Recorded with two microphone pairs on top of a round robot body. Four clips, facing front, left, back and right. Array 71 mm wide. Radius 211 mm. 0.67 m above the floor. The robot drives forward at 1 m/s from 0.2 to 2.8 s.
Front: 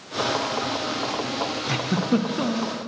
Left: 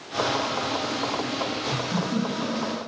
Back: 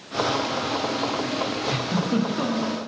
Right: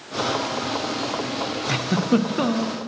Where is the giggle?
65° right, 1.8 m; by 2.8 s 100° right, 1.7 m.